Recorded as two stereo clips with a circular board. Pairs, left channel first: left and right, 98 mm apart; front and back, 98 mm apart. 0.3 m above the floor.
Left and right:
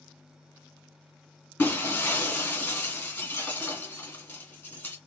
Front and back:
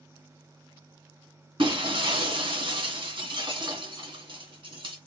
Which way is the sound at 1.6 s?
160° left.